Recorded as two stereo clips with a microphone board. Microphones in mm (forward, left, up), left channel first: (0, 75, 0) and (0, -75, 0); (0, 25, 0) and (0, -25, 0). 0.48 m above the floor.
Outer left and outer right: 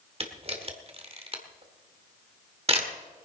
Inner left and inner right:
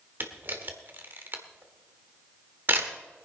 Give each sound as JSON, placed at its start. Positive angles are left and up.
{"t": 0.2, "sound": "a camera shutter", "side_deg": -45, "distance_m": 1.6}